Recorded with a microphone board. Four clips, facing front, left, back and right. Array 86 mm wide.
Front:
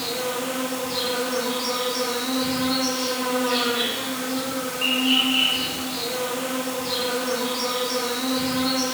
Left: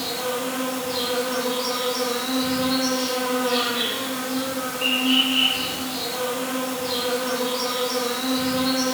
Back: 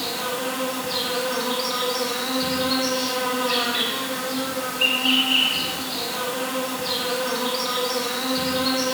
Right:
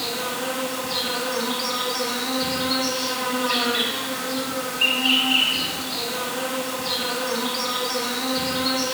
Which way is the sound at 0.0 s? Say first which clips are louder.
Left 1 dB, even; 140° right.